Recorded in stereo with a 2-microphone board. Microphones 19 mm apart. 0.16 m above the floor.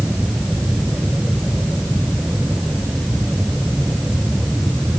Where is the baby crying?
No baby crying in this recording.